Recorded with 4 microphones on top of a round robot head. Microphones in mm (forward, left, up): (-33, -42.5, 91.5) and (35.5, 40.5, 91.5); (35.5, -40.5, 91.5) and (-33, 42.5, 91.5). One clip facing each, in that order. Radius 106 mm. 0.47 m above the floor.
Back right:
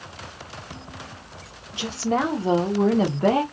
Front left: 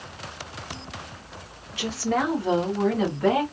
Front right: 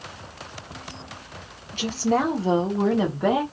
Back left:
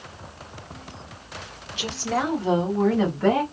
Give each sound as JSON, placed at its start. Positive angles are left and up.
{"t": 1.7, "sound": "a woman speaking", "azimuth_deg": -70, "distance_m": 1.3}